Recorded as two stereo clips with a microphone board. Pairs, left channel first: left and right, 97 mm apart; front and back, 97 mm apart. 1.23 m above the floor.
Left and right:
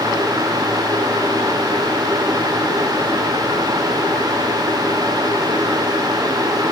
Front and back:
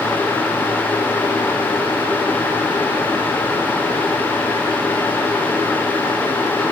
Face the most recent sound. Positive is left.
No sound to turn to.